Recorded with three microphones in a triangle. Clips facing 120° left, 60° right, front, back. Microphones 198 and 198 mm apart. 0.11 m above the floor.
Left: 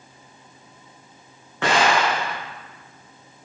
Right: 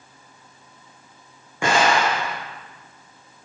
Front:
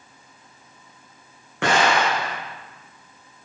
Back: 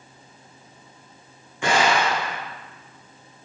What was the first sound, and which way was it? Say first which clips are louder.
An explosion: even, front 1 dB; 20° left.